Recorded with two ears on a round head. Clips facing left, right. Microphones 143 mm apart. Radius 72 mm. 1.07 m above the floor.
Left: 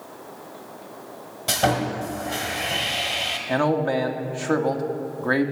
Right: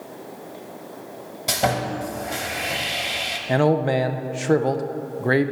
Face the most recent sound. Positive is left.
turn(degrees=-25)  # may be behind; listen again after turning